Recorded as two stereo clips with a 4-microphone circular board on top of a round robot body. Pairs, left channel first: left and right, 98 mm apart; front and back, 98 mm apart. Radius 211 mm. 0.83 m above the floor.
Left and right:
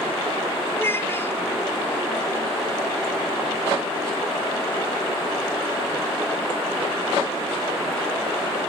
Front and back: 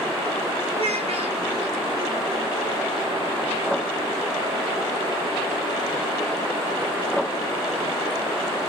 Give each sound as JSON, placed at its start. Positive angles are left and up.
{"t": 0.7, "sound": "a child speaking", "azimuth_deg": 160, "distance_m": 2.5}